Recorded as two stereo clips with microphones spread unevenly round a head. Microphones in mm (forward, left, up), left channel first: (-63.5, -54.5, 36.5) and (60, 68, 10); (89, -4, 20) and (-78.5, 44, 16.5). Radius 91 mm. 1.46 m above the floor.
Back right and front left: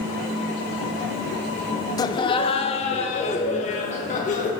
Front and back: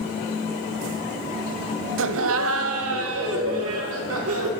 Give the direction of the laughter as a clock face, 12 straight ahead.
7 o'clock.